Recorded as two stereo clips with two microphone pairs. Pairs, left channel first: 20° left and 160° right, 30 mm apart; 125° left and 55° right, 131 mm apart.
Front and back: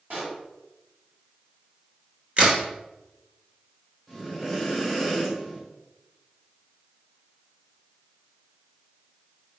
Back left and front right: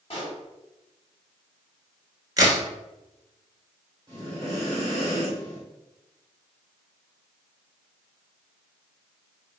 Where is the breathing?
95° right, 1.4 m.